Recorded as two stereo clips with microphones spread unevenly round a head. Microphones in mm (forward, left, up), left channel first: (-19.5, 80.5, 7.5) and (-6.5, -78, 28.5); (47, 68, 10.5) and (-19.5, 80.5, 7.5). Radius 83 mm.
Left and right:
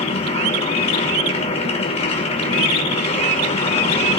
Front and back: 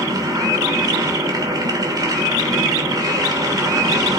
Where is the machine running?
150° left, 2.5 m.